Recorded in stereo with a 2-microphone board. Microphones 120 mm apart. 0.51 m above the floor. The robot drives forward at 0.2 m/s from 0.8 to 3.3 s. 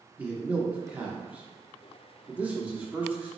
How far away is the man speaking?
About 0.8 m.